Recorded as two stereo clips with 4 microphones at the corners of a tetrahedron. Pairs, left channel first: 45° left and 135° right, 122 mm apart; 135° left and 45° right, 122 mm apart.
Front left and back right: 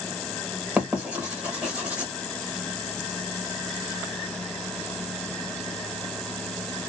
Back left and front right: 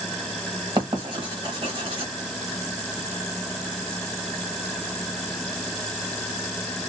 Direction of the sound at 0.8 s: 60° right.